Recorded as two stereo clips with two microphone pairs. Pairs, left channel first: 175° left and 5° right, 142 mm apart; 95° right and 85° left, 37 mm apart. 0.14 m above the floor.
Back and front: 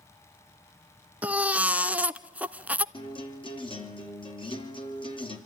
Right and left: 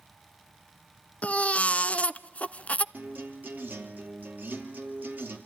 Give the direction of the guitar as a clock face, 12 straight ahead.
8 o'clock.